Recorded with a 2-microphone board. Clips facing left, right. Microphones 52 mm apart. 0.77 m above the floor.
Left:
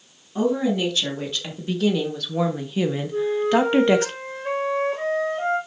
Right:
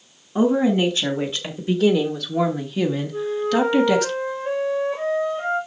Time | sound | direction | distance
0.3 | a woman speaking | 25° right (ahead or behind) | 2.0 m
3.1 | a flute | 70° left (ahead or behind) | 4.5 m